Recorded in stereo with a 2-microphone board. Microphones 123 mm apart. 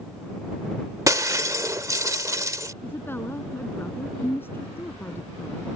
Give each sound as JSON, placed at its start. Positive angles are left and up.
{"t": 1.1, "sound": "breaking glass", "side_deg": -25}
{"t": 2.8, "sound": "a woman speaking", "side_deg": 20}